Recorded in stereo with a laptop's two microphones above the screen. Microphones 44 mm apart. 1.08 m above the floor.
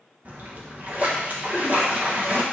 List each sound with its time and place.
0.2 s a splash: 35° right (ahead or behind), 1.3 m